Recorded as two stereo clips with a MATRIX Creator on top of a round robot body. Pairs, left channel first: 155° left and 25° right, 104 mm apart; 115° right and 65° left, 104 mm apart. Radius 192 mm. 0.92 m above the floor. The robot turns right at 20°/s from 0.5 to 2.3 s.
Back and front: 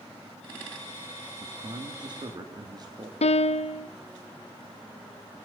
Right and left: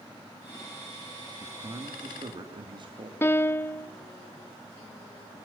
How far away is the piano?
About 0.8 m.